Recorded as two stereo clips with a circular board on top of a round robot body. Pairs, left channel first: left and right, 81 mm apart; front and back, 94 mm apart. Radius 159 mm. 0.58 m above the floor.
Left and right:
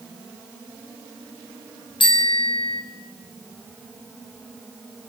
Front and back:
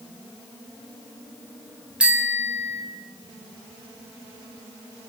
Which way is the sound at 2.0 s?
100° left.